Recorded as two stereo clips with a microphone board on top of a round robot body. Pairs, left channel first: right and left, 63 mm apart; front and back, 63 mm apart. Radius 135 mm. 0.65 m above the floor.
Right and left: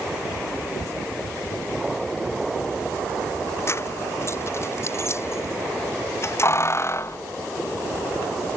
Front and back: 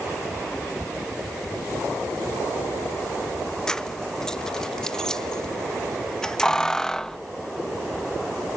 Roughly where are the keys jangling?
Right.